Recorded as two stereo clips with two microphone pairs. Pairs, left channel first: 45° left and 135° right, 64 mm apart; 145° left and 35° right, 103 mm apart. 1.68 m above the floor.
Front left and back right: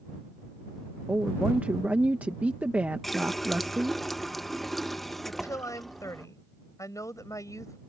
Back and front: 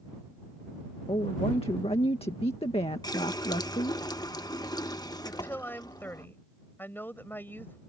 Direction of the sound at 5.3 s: 75° left.